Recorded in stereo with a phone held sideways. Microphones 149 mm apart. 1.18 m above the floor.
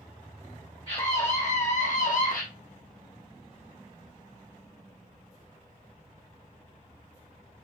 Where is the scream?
40° left (ahead or behind), 1.4 m; by 2.4 s 70° left (ahead or behind), 1.4 m.